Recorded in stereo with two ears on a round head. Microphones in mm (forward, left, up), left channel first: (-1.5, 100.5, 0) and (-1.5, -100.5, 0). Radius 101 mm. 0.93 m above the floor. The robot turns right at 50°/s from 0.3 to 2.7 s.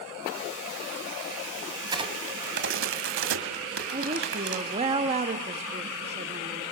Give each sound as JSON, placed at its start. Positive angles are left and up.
{"t": 1.8, "sound": "a crack", "side_deg": -15, "distance_m": 2.0}
{"t": 3.9, "sound": "a woman speaking", "side_deg": -30, "distance_m": 1.0}